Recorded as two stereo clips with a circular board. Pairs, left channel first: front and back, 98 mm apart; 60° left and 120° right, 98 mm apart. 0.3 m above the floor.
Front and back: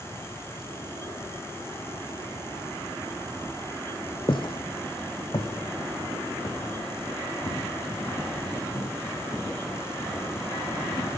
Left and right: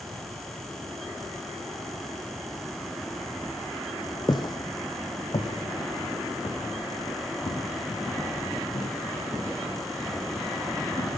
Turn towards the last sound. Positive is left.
turn(degrees=50)